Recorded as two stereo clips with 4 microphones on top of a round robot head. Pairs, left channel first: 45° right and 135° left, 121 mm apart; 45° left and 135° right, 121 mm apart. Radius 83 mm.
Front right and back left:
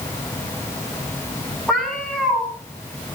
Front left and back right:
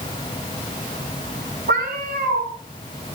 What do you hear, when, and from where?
1.7 s a cat meowing: 130° right, 5.5 m